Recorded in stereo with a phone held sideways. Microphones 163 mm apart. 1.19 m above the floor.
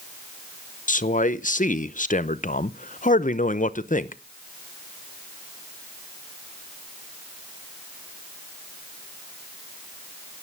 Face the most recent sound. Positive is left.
turn(degrees=55)  # may be behind; listen again after turning